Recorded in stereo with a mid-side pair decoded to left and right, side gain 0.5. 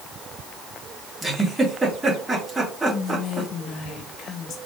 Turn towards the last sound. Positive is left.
turn(degrees=60)